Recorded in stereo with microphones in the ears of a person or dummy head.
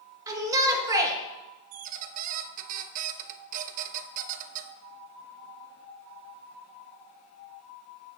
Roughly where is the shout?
Centre.